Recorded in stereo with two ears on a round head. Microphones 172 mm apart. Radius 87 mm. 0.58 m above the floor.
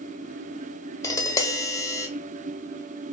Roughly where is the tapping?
Centre.